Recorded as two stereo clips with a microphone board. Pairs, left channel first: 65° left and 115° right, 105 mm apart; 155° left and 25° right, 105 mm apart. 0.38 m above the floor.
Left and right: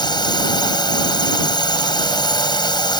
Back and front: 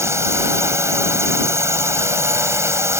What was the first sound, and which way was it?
A drone, 35° left.